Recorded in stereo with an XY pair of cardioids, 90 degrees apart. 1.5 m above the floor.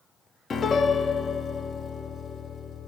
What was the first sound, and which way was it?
A piano, 50° left.